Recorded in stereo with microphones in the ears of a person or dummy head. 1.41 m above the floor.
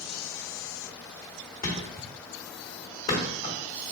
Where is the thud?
30° left (ahead or behind), 1.5 m.